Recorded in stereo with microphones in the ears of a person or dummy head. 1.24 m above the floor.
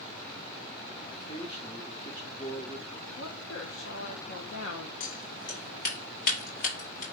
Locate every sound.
1.1 s a man speaking: 35° left (ahead or behind), 1.9 m
3.2 s a woman speaking: 75° left (ahead or behind), 1.0 m
5.0 s scissors: 60° left (ahead or behind), 4.5 m